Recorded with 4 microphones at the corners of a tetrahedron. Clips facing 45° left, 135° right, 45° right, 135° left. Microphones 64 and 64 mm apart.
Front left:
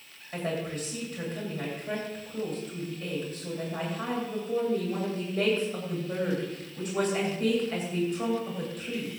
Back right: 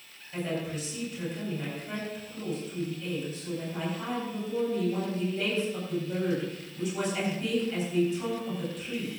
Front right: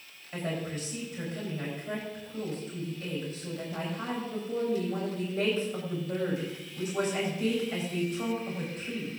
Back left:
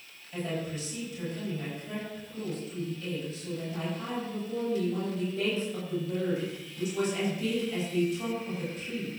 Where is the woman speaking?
5° left, 9 m.